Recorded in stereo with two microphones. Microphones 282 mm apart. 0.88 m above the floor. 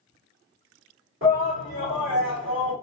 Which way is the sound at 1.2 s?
45° right (ahead or behind).